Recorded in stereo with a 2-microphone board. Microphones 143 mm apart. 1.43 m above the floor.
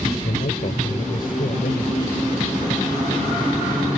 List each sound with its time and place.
0.2 s a man speaking: 80° left; by 2.1 s 85° left